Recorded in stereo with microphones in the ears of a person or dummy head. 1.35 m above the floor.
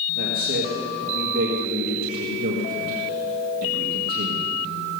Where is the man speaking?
45° right (ahead or behind), 1.9 m.